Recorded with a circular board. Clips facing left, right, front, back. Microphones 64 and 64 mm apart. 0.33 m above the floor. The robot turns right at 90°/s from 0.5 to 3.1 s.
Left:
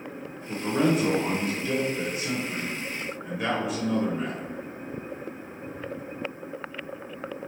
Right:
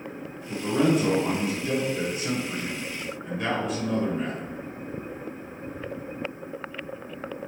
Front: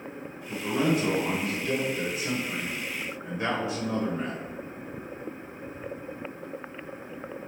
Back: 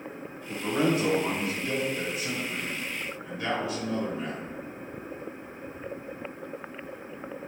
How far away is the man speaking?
About 0.9 m.